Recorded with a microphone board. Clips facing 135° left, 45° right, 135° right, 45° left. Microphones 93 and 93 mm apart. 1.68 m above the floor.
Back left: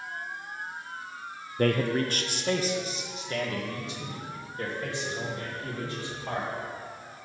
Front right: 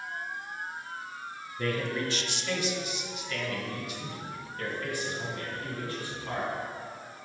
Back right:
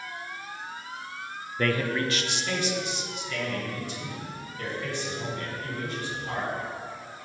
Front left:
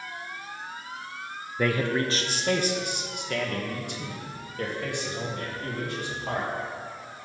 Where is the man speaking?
125° left, 0.5 m; by 6.5 s 65° left, 3.5 m.